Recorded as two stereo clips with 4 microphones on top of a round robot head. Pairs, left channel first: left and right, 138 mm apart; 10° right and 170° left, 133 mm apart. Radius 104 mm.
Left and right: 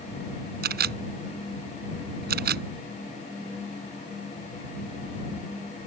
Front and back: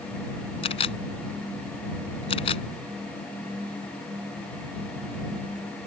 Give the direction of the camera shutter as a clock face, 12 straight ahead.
2 o'clock.